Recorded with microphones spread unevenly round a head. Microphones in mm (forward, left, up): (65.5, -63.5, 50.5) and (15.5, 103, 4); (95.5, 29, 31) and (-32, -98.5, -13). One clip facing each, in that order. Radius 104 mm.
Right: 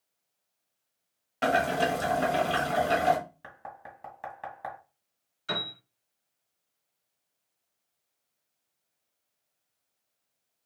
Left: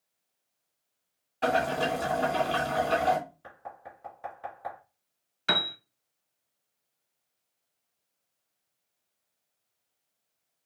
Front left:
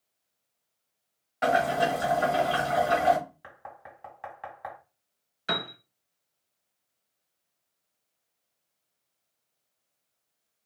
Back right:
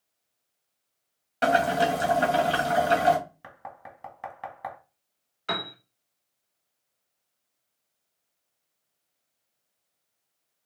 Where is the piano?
120° left, 0.7 m.